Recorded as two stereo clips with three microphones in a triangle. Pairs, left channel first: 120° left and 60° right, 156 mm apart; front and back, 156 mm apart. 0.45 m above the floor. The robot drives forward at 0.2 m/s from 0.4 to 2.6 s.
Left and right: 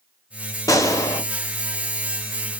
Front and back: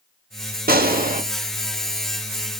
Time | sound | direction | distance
0.7 | a gunshot | 175° right | 0.5 m